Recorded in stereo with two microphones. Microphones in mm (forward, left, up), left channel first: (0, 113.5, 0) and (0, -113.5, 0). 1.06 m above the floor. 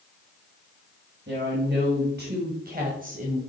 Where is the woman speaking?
50° right (ahead or behind), 2 m; by 3.4 s 30° right (ahead or behind), 1.2 m.